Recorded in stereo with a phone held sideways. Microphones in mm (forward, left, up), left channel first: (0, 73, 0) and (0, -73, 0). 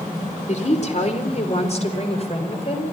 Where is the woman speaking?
55° left (ahead or behind), 3.5 m; by 2.8 s 45° left (ahead or behind), 5 m.